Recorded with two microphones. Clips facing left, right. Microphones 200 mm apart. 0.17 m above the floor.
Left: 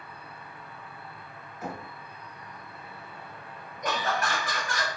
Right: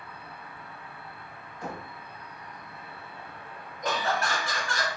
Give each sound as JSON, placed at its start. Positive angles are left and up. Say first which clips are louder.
{"t": 0.0, "sound": "an insect", "louder": "right 1 dB", "side_deg": -70, "distance_m": 1.1}
{"t": 1.6, "sound": "knocking", "louder": "left 1 dB", "side_deg": 5, "distance_m": 0.7}
{"t": 3.8, "sound": "laughter", "louder": "right 1 dB", "side_deg": 0, "distance_m": 1.1}